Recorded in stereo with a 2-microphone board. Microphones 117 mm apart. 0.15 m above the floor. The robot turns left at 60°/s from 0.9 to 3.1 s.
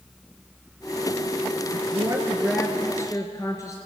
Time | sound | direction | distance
1.7 | a woman speaking | 130° right | 2.0 m